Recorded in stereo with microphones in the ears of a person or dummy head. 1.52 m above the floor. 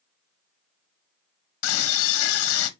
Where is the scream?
75° left (ahead or behind), 1.4 m.